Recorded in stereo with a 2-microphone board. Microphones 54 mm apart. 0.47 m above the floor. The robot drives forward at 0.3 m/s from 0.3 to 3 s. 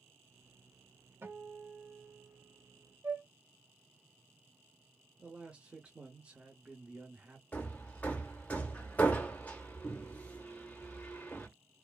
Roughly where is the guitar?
Right.